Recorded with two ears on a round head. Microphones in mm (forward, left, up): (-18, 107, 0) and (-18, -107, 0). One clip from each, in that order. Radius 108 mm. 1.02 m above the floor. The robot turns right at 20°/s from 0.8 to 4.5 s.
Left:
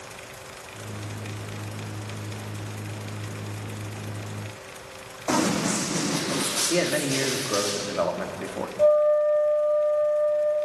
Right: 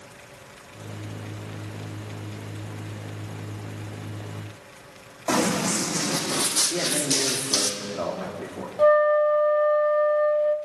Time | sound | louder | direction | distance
5.3 | running footsteps | right 1 dB | 5° right (ahead or behind) | 3.5 m
6.7 | a man speaking | left 1 dB | 50° left (ahead or behind) | 2.5 m
8.8 | a flute | right 1 dB | 70° right (ahead or behind) | 1.4 m